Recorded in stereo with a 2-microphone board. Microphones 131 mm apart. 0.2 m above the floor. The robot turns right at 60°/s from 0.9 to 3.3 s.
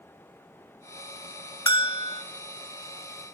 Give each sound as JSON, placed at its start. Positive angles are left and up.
{"t": 1.7, "sound": "a bell", "azimuth_deg": 45, "distance_m": 0.6}